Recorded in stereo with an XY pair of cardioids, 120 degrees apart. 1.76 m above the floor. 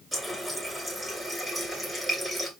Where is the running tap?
5° right, 2.5 m.